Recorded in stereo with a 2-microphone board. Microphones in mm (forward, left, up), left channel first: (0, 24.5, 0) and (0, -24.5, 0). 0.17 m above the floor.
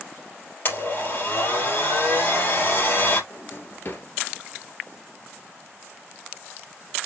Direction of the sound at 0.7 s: 45° left (ahead or behind).